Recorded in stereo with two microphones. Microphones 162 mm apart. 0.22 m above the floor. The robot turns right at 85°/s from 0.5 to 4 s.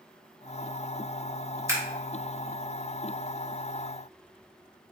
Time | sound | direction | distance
1.7 | scissors | 20° right (ahead or behind) | 1.1 m